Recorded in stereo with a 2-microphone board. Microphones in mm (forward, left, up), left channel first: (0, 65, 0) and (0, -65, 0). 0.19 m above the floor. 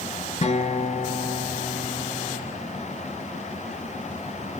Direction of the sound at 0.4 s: 55° left (ahead or behind).